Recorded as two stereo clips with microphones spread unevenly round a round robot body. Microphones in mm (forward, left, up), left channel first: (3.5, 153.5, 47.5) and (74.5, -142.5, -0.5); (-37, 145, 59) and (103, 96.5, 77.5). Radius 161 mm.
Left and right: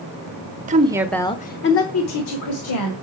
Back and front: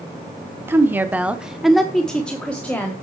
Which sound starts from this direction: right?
A woman speaking, at 0.7 s.